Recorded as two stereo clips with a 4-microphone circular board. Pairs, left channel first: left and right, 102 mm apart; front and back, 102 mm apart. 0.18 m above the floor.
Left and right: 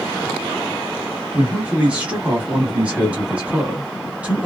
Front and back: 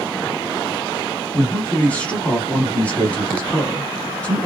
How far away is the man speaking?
About 1.1 m.